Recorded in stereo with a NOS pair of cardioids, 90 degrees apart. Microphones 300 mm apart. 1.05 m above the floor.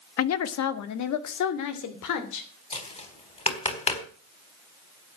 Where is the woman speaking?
50° left, 1.3 m; by 2.5 s 80° left, 3.5 m.